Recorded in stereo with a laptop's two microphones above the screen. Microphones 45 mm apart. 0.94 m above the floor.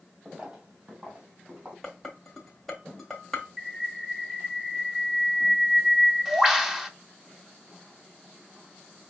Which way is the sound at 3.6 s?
10° right (ahead or behind).